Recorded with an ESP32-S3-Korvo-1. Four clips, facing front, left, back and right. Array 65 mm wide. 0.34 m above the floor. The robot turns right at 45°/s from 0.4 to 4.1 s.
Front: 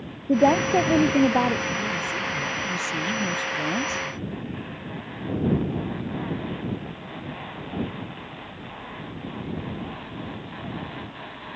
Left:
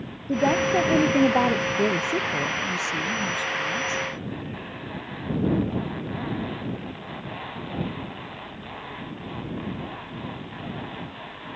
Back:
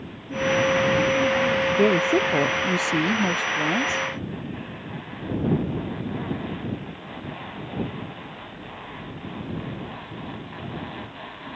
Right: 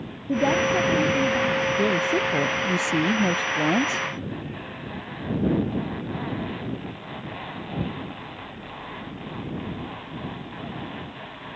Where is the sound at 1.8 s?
170° left; by 4.1 s 85° right.